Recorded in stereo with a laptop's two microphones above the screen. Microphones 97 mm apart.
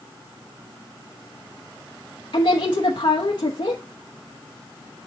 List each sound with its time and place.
2.3 s a woman speaking: 60° left (ahead or behind), 0.8 m